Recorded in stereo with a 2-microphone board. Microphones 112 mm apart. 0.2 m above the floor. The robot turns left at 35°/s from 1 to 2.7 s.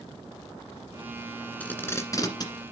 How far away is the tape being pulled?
About 1.7 m.